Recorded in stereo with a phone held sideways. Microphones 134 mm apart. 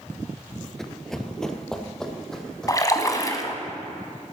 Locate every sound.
0.8 s running footsteps: 5° left (ahead or behind), 0.8 m
2.7 s a splash: 25° left (ahead or behind), 1.4 m